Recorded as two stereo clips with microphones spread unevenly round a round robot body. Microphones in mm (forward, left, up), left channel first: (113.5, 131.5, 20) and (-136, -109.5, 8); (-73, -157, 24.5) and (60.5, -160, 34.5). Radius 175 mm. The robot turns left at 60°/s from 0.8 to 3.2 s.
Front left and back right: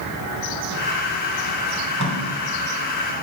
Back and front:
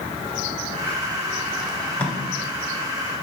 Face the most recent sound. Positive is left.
turn(degrees=180)